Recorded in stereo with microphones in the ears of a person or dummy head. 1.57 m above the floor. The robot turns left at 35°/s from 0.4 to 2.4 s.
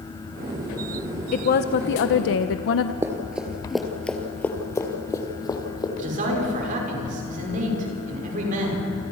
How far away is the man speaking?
About 6.5 m.